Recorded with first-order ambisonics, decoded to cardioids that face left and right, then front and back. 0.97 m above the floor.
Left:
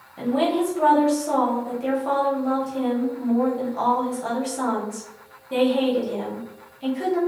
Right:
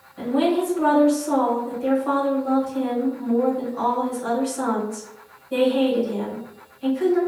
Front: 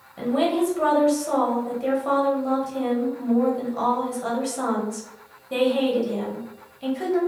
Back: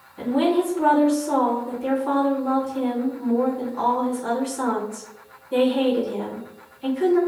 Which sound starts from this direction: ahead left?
A woman speaking, at 0.2 s.